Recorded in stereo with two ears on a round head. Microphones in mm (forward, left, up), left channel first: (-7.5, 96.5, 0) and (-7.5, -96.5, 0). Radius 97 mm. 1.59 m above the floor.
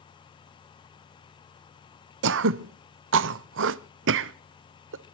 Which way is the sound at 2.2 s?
60° right (ahead or behind).